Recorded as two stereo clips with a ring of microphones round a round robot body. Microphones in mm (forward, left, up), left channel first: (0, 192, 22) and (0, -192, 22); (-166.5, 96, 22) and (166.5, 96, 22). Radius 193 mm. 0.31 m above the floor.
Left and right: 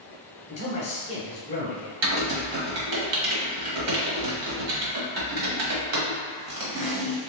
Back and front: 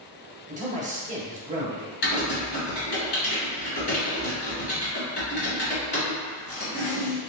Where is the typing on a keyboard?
120° right, 1.2 m.